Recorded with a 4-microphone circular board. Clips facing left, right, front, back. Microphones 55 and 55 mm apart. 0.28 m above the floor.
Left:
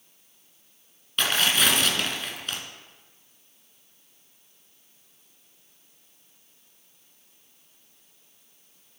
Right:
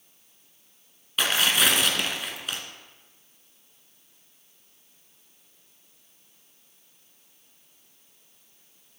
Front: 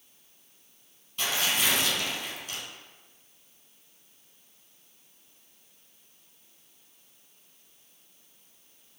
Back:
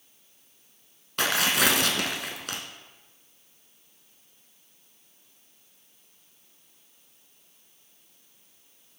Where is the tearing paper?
175° right, 1.2 m.